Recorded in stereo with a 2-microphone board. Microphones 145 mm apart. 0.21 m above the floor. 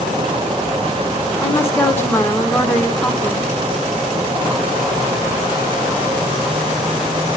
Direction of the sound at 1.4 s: 20° left (ahead or behind).